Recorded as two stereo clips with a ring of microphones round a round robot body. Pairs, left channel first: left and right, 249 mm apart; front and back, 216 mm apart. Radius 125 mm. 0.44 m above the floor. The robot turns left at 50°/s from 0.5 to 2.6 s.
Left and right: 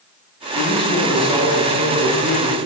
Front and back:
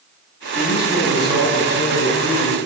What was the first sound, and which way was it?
A man speaking, 30° left.